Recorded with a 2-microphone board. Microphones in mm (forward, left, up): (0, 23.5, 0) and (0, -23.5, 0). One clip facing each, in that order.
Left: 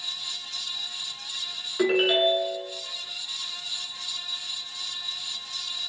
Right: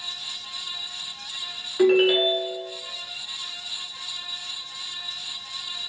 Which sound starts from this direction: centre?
A ringtone, at 1.8 s.